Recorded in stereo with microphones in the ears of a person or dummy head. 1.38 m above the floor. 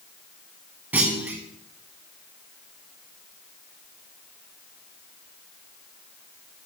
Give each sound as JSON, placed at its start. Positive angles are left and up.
{"t": 0.9, "sound": "a clunk", "side_deg": -5, "distance_m": 0.7}